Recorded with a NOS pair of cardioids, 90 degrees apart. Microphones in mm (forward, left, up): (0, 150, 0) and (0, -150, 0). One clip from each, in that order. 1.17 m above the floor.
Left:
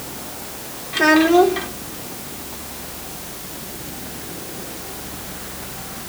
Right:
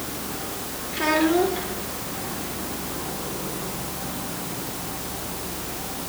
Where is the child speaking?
55° left, 3 m.